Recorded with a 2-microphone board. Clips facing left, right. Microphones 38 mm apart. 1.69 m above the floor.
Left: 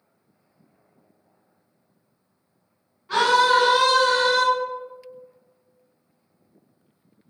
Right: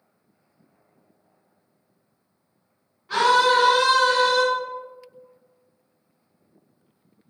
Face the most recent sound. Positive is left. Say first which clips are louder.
# even
turn(degrees=-5)  # may be behind; listen again after turning